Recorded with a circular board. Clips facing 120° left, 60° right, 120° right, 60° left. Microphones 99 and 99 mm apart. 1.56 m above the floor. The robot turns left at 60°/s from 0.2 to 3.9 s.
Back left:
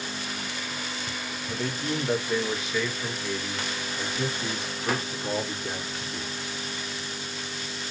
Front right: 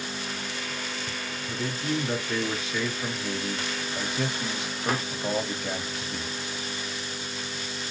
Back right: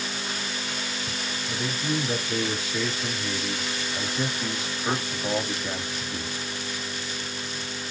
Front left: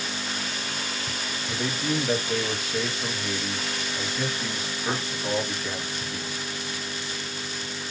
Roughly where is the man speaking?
Left.